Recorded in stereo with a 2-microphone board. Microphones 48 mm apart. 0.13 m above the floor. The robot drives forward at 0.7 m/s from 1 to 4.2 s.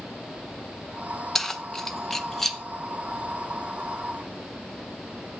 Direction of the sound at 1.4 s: 5° left (ahead or behind).